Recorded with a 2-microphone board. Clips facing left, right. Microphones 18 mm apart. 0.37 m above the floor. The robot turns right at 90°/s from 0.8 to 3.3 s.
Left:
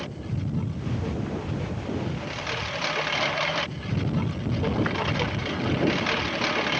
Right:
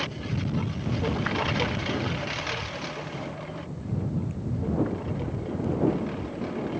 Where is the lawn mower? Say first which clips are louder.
Right 2 dB; 150° right; by 6.8 s 75° left.